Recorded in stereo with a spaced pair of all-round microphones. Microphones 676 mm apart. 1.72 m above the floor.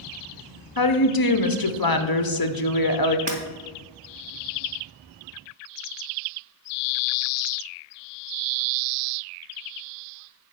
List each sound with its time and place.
0.8 s a woman speaking: 35° left (ahead or behind), 0.9 m
3.3 s breaking glass: 35° right (ahead or behind), 2 m